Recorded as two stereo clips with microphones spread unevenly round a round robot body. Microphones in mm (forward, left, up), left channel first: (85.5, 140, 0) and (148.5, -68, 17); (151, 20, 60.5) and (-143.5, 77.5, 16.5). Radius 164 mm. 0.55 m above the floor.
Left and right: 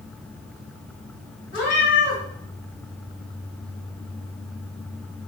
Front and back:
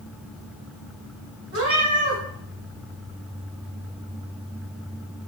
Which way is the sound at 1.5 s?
125° left.